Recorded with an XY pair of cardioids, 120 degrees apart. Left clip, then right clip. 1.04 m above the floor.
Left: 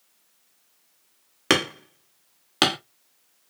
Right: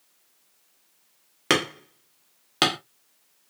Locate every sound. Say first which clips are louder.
1.5 s hammering: left 1 dB; 10° left, 1.6 m